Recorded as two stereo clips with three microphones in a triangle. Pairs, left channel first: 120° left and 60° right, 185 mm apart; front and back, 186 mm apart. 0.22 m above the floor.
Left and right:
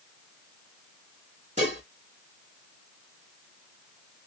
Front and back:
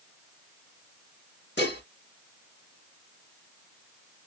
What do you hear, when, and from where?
1.6 s dishes clattering: 10° right, 3 m